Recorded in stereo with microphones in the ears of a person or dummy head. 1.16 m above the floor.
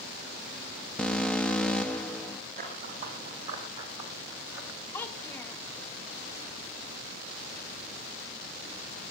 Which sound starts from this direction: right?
Running footsteps, at 2.6 s.